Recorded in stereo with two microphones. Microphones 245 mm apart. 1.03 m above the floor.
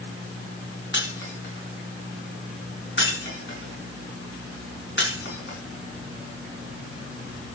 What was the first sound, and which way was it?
Breaking glass, 45° left (ahead or behind).